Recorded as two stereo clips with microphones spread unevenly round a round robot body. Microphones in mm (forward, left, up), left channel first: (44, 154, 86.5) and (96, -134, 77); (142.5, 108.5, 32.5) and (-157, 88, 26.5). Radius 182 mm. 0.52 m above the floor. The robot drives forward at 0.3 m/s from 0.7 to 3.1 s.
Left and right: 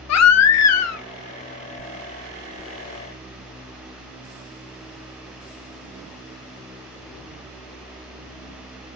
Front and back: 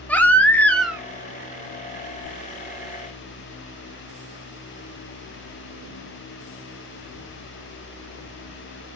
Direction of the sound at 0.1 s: 90° left.